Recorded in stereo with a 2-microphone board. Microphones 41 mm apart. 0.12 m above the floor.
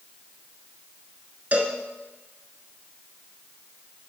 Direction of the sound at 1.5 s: 35° right (ahead or behind).